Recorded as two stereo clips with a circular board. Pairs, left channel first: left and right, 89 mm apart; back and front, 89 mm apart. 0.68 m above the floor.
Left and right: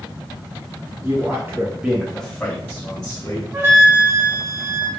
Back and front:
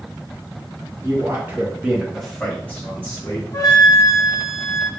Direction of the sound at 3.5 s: 135° right.